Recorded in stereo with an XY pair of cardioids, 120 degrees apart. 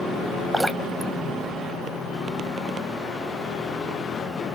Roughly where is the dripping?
Ahead.